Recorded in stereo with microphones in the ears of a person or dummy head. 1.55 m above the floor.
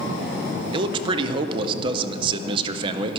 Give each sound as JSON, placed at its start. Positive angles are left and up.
{"t": 0.7, "sound": "a man speaking", "side_deg": -30, "distance_m": 0.8}